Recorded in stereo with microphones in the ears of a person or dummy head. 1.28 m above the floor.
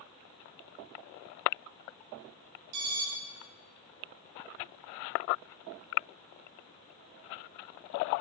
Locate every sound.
2.7 s an alarm: 40° right (ahead or behind), 1.9 m